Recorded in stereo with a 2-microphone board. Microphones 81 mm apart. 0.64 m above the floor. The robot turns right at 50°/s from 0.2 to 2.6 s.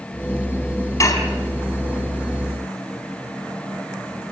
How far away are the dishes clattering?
About 3.5 m.